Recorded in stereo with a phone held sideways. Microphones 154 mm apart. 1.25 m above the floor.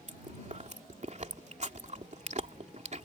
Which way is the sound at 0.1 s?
50° right (ahead or behind).